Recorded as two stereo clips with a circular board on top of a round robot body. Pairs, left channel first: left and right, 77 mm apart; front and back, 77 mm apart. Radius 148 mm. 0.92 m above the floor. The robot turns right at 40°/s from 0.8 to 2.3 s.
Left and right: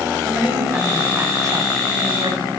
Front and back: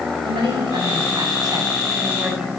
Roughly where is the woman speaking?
Behind.